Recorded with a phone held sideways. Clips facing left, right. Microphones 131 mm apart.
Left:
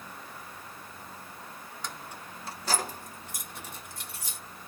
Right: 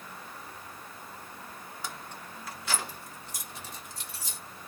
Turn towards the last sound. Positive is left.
turn(degrees=60)  # may be behind; listen again after turning